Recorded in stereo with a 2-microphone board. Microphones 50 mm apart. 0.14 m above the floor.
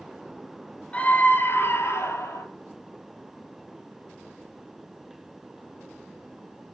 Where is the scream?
25° left (ahead or behind), 1.7 m; by 2.4 s 65° left (ahead or behind), 3 m.